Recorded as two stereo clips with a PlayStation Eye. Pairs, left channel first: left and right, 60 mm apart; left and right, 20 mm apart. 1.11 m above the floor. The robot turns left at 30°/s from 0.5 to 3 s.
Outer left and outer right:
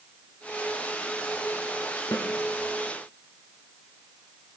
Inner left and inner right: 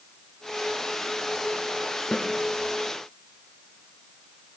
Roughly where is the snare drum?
Left.